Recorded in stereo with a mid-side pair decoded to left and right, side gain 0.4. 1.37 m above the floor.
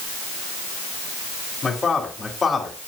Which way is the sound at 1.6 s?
35° left.